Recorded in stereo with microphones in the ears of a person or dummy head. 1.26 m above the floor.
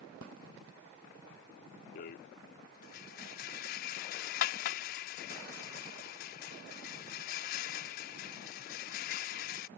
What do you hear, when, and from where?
1.9 s a rattle: 50° left (ahead or behind)